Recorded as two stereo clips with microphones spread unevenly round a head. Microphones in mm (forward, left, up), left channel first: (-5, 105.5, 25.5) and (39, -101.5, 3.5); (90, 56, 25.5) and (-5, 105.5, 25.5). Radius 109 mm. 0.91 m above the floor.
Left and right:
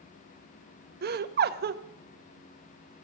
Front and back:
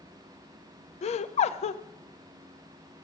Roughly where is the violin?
No violin in this recording.